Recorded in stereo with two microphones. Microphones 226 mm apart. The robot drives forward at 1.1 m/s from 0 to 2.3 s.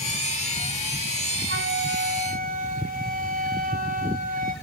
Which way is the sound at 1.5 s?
50° right (ahead or behind).